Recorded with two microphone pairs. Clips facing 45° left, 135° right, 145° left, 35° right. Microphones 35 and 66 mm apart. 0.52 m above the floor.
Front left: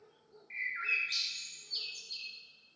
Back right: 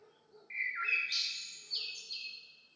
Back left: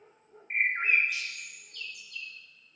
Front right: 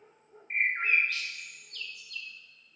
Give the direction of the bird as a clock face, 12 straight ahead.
7 o'clock.